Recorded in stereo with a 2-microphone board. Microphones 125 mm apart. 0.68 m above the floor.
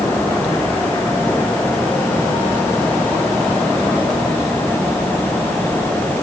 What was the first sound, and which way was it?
Only background noise.